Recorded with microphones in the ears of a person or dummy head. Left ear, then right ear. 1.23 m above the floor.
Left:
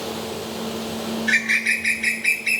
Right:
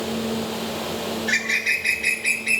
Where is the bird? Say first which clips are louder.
Left 3 dB; 20° left (ahead or behind), 1.4 m.